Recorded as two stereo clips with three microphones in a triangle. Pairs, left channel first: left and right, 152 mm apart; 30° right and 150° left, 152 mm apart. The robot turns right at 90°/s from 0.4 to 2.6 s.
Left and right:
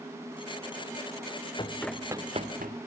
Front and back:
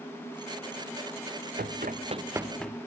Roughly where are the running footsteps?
Behind left.